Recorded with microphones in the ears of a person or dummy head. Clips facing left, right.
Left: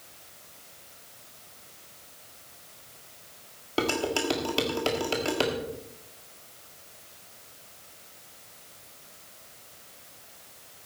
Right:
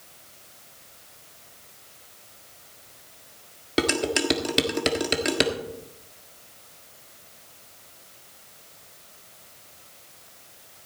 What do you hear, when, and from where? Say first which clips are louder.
3.8 s dishes clattering: right 3 dB; 20° right (ahead or behind), 1.4 m